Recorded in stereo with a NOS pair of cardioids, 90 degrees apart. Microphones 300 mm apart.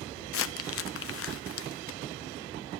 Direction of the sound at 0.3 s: 45° left.